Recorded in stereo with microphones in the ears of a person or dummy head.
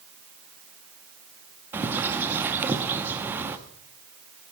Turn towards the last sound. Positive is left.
turn(degrees=-5)  # may be behind; listen again after turning